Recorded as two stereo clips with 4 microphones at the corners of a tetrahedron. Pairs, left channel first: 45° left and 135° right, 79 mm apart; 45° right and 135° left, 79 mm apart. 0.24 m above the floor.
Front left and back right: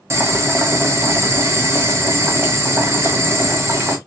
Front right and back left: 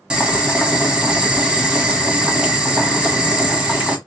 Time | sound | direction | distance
0.1 | boiling | 155° right | 1.2 m